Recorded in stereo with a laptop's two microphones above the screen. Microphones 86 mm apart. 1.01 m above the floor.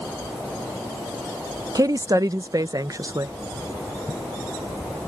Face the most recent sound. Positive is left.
turn(degrees=-45)  # may be behind; listen again after turning